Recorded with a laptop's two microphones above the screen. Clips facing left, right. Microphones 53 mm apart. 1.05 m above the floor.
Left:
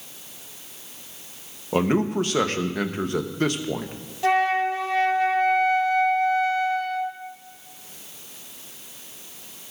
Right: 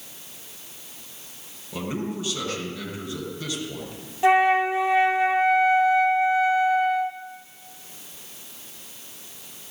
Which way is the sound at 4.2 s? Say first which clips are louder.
Right 3 dB; 20° right (ahead or behind).